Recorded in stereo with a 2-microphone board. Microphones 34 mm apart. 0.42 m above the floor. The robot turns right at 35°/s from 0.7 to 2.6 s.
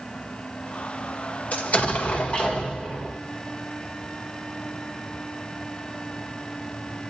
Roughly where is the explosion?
Left.